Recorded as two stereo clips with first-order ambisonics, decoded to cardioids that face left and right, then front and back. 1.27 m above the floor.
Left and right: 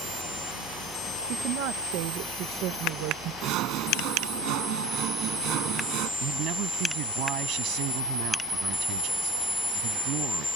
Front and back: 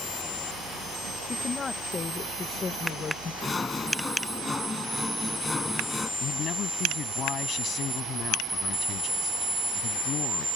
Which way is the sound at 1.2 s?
70° right.